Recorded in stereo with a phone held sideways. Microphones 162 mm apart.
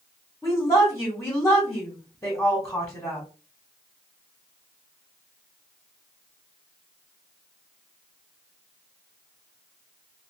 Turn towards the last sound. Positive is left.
turn(degrees=20)  # may be behind; listen again after turning